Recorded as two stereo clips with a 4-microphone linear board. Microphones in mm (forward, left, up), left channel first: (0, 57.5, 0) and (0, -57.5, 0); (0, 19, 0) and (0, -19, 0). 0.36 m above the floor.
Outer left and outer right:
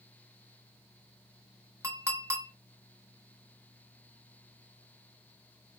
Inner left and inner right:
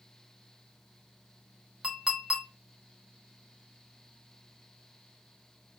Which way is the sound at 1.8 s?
25° right (ahead or behind).